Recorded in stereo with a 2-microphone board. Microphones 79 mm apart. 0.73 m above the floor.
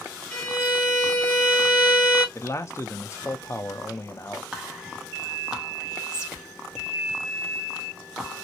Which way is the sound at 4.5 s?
10° right (ahead or behind).